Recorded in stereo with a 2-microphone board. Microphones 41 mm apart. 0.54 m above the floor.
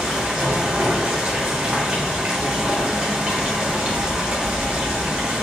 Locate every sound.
0.0 s running water: 25° right (ahead or behind), 0.9 m